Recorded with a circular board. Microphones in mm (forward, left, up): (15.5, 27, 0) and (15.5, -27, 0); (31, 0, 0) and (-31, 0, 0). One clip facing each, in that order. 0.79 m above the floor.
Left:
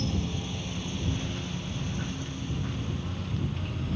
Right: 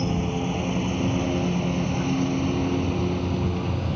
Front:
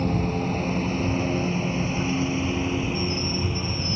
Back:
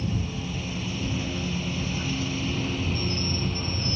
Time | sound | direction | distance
0.0 | a lawn mower | 40° right | ?